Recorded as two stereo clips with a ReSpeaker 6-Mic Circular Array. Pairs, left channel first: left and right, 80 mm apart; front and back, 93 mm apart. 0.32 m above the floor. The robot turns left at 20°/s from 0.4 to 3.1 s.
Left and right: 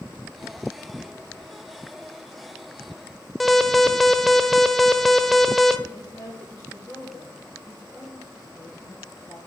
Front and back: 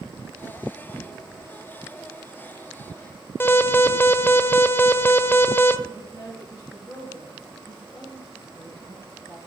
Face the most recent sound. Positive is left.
turn(degrees=50)